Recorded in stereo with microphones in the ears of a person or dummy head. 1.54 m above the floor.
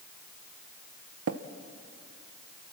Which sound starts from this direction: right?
Tapping, at 1.3 s.